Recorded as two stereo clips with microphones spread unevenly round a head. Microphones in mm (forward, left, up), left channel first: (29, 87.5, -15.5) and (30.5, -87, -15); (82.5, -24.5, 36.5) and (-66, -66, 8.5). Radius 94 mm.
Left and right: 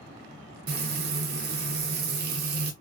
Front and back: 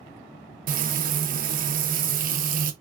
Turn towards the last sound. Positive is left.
turn(degrees=-130)